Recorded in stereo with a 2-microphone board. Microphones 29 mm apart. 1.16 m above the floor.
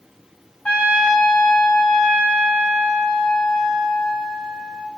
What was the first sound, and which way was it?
A trumpet, 50° left (ahead or behind).